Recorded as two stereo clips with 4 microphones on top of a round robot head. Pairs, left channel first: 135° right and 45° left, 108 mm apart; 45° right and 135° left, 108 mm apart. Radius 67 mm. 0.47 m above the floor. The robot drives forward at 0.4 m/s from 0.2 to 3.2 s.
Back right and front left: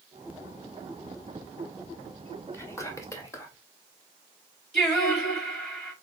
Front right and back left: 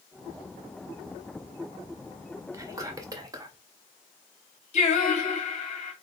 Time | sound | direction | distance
2.5 | whispering | 175° left | 1.5 m
4.7 | singing | 50° right | 2.5 m